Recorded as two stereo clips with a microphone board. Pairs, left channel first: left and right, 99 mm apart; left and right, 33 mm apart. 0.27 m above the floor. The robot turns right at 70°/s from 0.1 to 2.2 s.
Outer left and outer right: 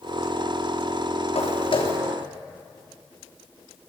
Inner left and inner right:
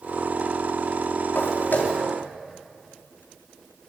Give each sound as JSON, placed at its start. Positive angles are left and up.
{"t": 1.4, "sound": "footsteps", "side_deg": 85, "distance_m": 3.5}